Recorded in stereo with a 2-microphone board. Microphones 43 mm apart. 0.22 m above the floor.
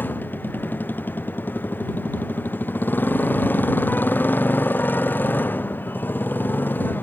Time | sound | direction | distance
0.0 | a motorcycle | 50° left (ahead or behind) | ?